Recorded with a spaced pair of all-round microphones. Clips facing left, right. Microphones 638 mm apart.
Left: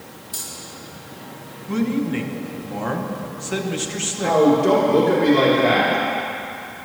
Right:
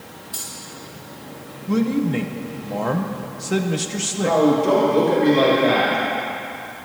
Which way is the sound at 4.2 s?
80° left.